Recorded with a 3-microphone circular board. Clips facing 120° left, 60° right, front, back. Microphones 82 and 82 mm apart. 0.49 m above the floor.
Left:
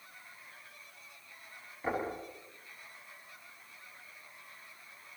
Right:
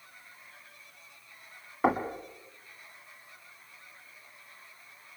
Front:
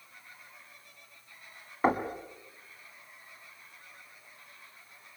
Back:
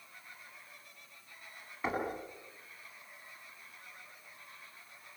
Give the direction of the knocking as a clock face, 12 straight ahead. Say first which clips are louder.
Right 8 dB, front 8 dB; 2 o'clock.